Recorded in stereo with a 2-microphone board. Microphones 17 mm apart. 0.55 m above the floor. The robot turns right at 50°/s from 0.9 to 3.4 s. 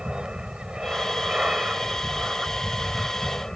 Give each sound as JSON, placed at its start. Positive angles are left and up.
{"t": 0.0, "sound": "an aircraft", "azimuth_deg": -100}